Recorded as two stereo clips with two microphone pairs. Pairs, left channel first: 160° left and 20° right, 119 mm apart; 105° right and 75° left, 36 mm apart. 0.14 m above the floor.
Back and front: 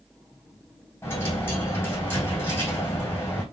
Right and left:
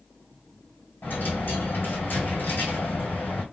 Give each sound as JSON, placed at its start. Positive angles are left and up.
{"t": 1.0, "sound": "a dropped coin", "azimuth_deg": -130, "distance_m": 2.5}